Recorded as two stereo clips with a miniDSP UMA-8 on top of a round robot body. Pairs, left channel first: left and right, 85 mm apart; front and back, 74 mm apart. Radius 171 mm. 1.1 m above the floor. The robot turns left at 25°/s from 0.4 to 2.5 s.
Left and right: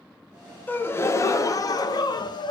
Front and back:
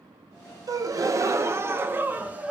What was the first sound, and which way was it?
A gasp, 155° left.